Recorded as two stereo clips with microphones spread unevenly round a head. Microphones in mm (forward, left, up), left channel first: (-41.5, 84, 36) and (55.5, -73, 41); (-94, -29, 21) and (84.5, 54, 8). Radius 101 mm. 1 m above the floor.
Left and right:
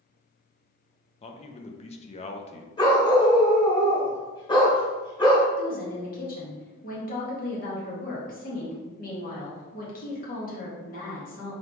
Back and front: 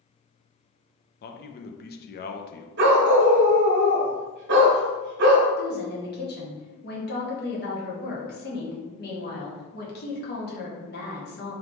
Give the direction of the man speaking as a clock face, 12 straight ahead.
6 o'clock.